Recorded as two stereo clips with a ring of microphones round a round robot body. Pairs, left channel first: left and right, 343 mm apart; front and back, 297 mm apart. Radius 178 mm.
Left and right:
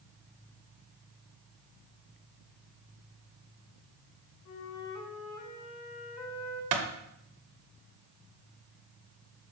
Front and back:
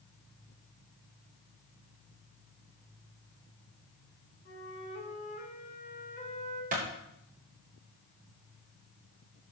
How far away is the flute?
About 4.5 m.